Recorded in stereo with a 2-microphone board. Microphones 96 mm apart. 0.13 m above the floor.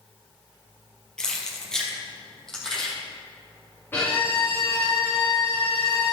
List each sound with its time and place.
1.2 s keys jangling: 5° left (ahead or behind), 2 m
3.9 s a violin: 20° left (ahead or behind), 4 m